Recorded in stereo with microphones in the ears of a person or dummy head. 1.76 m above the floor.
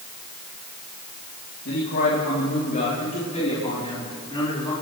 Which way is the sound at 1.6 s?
60° left (ahead or behind).